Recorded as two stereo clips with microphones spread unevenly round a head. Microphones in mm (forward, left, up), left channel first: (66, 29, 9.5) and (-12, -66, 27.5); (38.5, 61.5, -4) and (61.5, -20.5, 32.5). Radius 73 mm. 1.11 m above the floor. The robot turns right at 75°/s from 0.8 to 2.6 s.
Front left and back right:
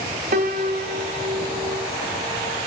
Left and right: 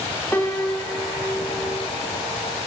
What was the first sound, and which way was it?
A piano, 160° right.